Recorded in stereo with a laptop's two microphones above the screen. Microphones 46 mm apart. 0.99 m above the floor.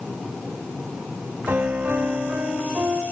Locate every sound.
1.5 s a piano: 50° right (ahead or behind), 1.0 m